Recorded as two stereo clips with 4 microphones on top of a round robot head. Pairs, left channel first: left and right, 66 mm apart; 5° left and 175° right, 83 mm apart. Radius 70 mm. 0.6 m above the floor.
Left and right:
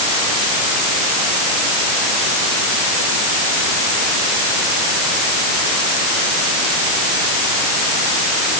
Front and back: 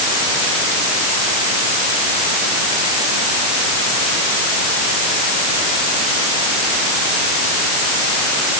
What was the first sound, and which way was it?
Only background noise.